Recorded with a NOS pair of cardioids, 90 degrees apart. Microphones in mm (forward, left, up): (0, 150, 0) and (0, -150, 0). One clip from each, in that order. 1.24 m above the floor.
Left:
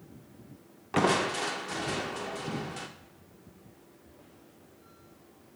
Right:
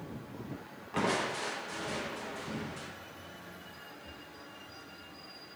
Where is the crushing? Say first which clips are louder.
Left 5 dB; 35° left, 0.7 m.